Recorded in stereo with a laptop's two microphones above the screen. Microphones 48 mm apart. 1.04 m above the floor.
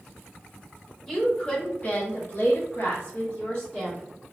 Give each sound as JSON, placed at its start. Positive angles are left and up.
{"t": 1.1, "sound": "a woman speaking", "side_deg": 15, "distance_m": 1.1}